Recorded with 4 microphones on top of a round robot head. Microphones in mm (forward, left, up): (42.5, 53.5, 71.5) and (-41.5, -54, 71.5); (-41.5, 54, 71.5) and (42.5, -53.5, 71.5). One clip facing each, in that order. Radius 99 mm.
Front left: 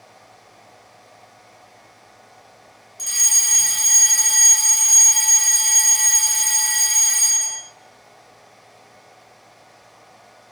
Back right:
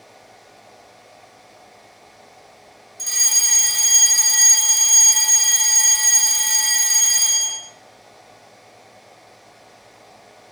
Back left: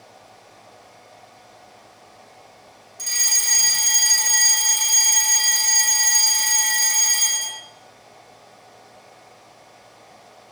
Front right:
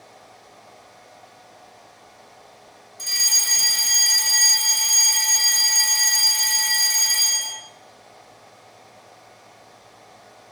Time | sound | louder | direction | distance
3.0 | a fire alarm | back right 1 dB, back left 1 dB | 125° left | 3 m